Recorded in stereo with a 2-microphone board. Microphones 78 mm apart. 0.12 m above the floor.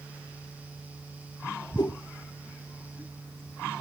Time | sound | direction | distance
1.8 | a whoosh | 65° left (ahead or behind) | 0.9 m